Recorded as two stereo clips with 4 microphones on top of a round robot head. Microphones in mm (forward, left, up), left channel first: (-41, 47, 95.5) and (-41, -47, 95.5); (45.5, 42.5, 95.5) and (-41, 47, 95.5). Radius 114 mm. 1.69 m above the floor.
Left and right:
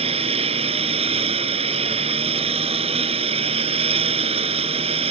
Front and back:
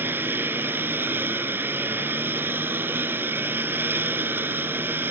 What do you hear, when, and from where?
0.0 s a lawn mower: 110° right